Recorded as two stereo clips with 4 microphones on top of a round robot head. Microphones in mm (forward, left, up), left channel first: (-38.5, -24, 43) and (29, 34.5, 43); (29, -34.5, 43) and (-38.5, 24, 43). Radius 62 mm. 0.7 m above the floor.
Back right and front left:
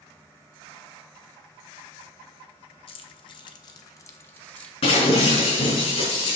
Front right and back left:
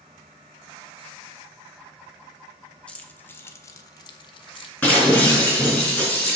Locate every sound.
2.9 s keys jangling: 120° right, 1.1 m; by 4.7 s 60° right, 1.0 m
4.8 s breaking glass: 115° right, 4.5 m